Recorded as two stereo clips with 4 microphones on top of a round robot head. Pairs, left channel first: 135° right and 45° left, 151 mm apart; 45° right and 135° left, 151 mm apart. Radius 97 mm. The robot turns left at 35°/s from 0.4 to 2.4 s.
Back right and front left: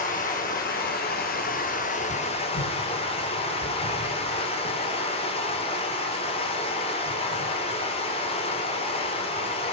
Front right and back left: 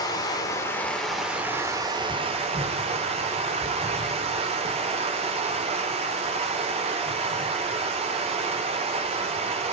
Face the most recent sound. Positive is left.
turn(degrees=180)